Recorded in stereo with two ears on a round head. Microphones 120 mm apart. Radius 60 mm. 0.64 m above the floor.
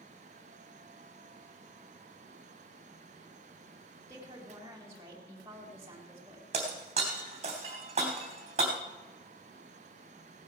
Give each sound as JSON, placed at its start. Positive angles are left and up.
{"t": 4.1, "sound": "a woman speaking", "side_deg": -25, "distance_m": 2.5}
{"t": 6.5, "sound": "breaking glass", "side_deg": -50, "distance_m": 3.0}